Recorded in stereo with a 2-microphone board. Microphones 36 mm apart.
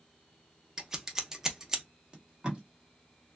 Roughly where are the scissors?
Centre.